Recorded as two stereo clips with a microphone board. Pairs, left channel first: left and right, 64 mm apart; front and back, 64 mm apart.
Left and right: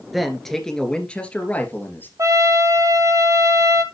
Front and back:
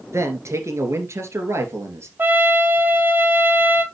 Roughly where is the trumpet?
Behind right.